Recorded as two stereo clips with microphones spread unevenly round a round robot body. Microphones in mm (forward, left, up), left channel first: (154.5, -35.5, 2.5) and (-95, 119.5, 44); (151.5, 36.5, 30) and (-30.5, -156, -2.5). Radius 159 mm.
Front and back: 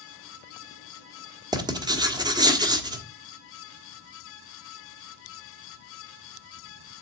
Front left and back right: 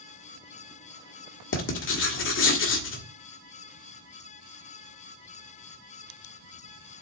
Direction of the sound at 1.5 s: 70° left.